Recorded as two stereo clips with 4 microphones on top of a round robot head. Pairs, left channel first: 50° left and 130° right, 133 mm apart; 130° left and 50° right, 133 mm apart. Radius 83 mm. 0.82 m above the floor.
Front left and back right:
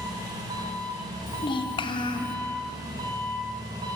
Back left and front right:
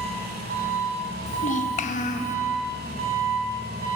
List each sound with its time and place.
0.0 s an engine running: 65° right, 1.0 m
1.3 s a child speaking: 105° left, 0.6 m